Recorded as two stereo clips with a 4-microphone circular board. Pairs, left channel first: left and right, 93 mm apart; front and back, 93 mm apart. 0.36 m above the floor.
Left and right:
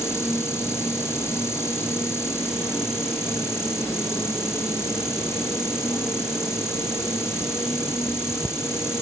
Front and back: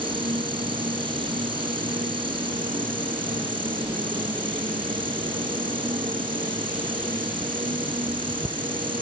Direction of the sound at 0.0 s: 155° left.